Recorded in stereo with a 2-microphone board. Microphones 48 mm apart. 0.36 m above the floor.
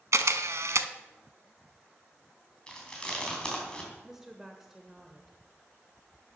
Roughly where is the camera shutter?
Right.